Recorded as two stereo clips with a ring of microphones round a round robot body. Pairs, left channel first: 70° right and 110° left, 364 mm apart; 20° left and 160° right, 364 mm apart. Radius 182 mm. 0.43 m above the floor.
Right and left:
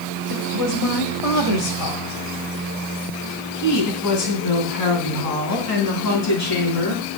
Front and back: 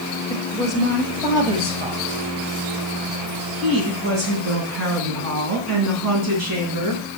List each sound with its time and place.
0.3 s a woman speaking: 60° right, 1.5 m; by 7.0 s 115° right, 4.5 m